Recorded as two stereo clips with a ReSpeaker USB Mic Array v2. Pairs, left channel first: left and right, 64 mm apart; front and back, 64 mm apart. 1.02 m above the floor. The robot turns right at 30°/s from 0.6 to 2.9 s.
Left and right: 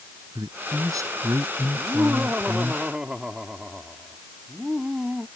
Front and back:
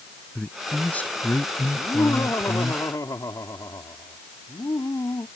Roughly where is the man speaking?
Right.